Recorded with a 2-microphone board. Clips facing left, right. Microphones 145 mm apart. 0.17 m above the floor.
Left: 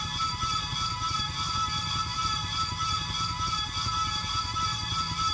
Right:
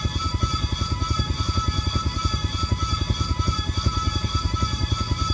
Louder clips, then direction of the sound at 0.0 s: Right 6 dB; 60° right (ahead or behind).